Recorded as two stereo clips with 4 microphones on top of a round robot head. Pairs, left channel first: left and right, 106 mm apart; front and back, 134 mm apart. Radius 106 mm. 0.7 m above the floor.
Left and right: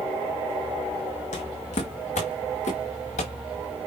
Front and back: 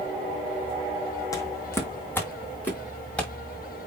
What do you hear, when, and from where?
1.3 s footsteps: 65° left, 2.0 m; by 3.3 s 80° left, 4.5 m